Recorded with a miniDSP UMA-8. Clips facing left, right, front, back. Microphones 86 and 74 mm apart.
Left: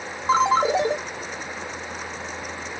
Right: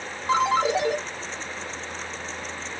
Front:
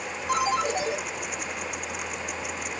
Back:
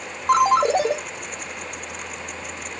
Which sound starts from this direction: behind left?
A ringtone, at 0.3 s.